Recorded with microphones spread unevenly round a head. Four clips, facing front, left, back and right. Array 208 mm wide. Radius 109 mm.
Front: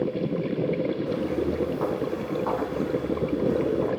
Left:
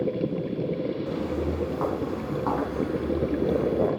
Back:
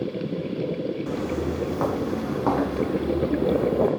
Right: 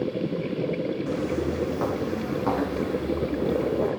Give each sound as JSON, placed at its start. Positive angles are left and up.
{"t": 1.1, "sound": "footsteps", "azimuth_deg": -155, "distance_m": 4.0}